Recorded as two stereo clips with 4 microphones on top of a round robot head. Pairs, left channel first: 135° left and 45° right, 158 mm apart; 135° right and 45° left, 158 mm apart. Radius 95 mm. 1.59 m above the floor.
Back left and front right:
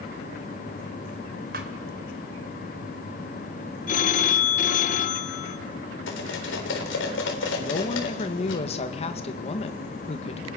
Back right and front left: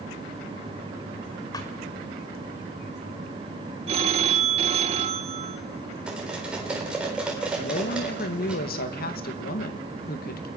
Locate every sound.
1.5 s a thud: 70° right, 1.8 m
3.9 s a phone ringing: 95° left, 0.9 m
6.1 s cutlery clinking: 130° left, 4 m
7.6 s a woman speaking: 170° right, 1.9 m